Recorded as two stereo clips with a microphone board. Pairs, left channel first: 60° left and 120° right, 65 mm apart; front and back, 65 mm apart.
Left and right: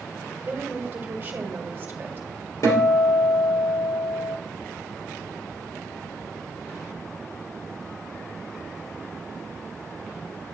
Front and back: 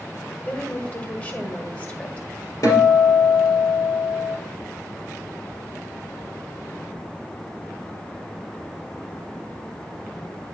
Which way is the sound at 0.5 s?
65° right.